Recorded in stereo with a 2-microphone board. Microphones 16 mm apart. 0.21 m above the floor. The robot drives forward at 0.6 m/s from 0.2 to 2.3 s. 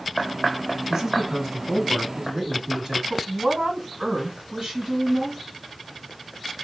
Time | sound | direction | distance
0.9 | a man speaking | 20° right (ahead or behind) | 1.6 m
3.1 | a woman speaking | 40° right (ahead or behind) | 1.8 m